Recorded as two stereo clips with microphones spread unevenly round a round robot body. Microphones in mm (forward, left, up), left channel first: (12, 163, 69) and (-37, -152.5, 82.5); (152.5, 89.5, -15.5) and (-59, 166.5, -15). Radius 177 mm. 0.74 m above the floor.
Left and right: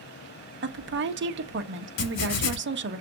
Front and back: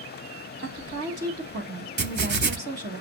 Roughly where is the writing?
Behind left.